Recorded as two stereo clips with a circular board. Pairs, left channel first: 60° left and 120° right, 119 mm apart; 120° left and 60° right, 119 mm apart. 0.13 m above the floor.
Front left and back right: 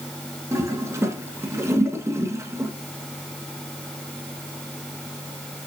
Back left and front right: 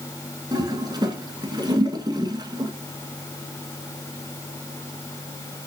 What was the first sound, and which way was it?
A toilet flushing, 70° right.